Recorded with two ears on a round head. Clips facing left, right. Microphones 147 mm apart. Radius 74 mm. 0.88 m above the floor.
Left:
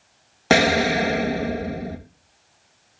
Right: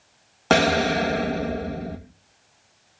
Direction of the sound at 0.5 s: 10° left (ahead or behind).